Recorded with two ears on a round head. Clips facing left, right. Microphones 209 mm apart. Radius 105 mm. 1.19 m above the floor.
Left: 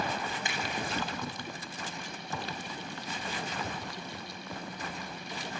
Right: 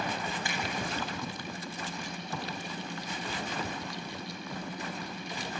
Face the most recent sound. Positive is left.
turn(degrees=20)  # may be behind; listen again after turning